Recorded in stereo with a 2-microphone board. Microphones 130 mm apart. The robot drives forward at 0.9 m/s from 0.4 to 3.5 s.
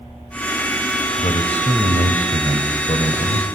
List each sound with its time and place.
1.2 s a man speaking: 55° left (ahead or behind), 2.5 m